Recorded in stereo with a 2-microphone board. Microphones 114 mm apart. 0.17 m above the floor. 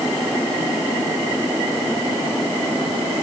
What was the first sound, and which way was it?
Only background noise.